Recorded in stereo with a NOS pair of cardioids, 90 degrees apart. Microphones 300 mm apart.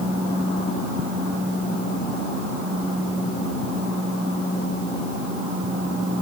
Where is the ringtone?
I don't hear a ringtone.